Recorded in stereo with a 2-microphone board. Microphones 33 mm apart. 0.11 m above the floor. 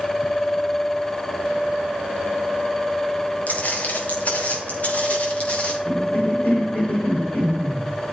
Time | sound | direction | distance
3.5 | footsteps | 55° left (ahead or behind) | 4.5 m
5.8 | a cough | 60° left (ahead or behind) | 6 m